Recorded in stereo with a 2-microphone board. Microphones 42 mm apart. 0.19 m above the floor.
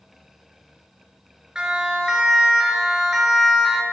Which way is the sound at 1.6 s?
15° right (ahead or behind).